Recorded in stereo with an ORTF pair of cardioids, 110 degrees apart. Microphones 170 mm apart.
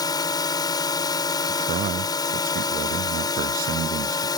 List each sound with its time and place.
0.0 s a drone: 25° left
1.5 s a man speaking: 55° right